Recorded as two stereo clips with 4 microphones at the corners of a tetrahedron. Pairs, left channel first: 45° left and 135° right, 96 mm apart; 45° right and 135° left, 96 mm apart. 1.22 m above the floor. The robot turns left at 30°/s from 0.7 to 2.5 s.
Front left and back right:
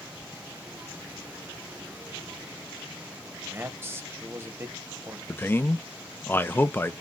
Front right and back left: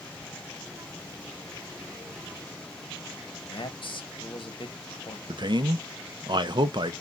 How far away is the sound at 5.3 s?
About 0.5 m.